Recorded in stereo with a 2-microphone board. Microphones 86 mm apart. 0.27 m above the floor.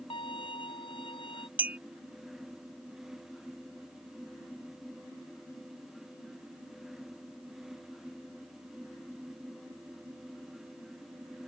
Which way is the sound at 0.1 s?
90° left.